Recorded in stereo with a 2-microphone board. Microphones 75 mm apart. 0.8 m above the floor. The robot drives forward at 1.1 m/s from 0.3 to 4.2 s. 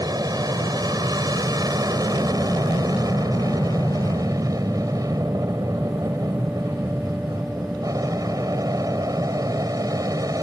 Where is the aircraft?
55° right (ahead or behind); by 10.4 s 50° right (ahead or behind).